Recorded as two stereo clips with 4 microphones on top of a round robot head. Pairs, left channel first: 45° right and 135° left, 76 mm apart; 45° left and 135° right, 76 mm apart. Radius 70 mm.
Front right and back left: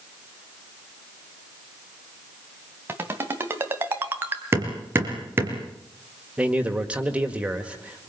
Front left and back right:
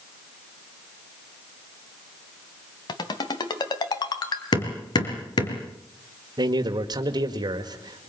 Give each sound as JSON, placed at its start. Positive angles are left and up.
{"t": 2.9, "sound": "a ringtone", "azimuth_deg": 70, "distance_m": 3.0}
{"t": 4.5, "sound": "hammering", "azimuth_deg": 75, "distance_m": 3.5}
{"t": 6.4, "sound": "a man speaking", "azimuth_deg": -150, "distance_m": 1.8}